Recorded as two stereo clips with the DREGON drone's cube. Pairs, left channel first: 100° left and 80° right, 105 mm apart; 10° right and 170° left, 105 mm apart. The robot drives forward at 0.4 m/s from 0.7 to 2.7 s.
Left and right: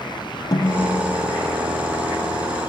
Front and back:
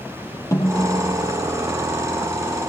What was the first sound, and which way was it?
A snare drum, 50° left.